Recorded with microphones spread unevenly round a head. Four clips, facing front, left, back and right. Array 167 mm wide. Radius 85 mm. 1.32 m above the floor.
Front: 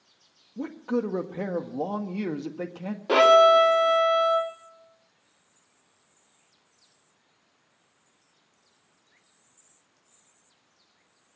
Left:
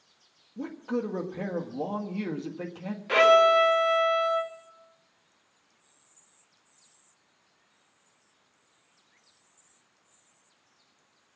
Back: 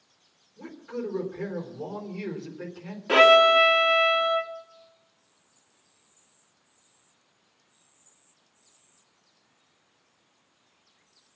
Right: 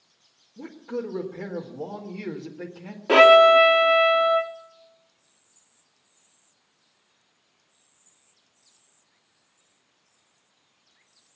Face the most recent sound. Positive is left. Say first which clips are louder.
# right 6 dB, front 1 dB
turn(degrees=-65)